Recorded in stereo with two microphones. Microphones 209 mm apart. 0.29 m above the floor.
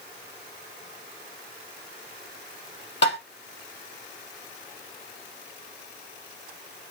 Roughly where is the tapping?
Left.